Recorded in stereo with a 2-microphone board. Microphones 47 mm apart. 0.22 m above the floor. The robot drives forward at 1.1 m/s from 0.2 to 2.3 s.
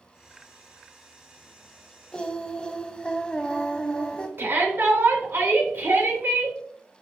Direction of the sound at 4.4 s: 55° right (ahead or behind).